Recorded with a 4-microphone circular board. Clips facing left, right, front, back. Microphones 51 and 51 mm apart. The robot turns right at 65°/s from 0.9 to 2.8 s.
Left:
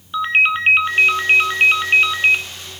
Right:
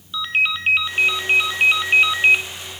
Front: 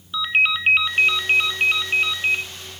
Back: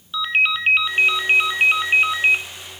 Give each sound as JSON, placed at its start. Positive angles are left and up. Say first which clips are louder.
{"t": 0.1, "sound": "a ringtone", "louder": "left 5 dB, even", "azimuth_deg": 85, "distance_m": 1.1}